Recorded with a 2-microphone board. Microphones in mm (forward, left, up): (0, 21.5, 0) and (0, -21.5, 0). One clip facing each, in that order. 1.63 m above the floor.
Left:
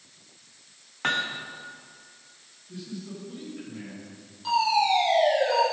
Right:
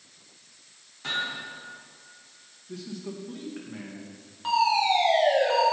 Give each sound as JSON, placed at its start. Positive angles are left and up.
{"t": 1.0, "sound": "hammering", "side_deg": 55, "distance_m": 0.8}
{"t": 2.7, "sound": "a man speaking", "side_deg": -75, "distance_m": 1.8}
{"t": 4.4, "sound": "a fire alarm", "side_deg": -35, "distance_m": 2.5}